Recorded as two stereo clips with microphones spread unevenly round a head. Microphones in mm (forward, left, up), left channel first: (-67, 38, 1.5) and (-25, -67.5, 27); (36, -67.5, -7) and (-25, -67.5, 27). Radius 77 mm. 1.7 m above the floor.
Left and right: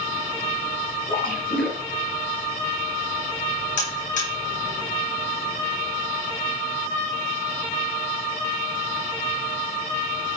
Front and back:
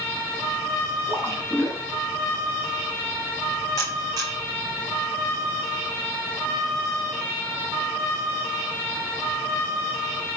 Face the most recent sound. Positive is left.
turn(degrees=115)